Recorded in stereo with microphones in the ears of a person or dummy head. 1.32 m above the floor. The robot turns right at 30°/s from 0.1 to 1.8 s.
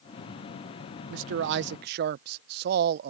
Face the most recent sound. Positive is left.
turn(degrees=-55)  # may be behind; listen again after turning